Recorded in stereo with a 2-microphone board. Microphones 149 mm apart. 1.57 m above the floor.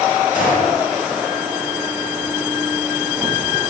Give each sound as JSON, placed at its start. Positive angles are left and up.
{"t": 0.3, "sound": "a gunshot", "side_deg": 65, "distance_m": 6.5}